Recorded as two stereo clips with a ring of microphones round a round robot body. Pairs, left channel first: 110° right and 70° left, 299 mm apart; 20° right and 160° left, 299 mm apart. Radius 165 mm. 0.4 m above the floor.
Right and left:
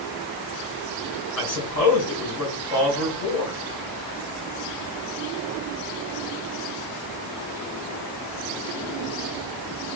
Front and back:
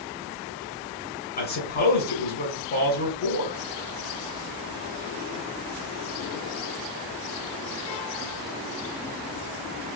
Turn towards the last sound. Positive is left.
turn(degrees=-80)